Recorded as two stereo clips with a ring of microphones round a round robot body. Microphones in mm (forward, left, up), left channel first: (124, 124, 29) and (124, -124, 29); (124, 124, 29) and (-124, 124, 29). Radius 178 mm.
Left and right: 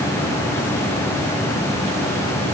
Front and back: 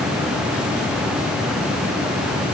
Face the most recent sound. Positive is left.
No sound to turn to.